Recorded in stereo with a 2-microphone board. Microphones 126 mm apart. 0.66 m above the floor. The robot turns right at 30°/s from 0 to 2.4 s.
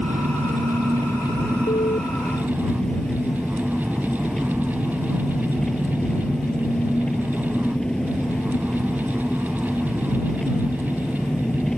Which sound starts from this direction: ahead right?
An engine running, at 0.0 s.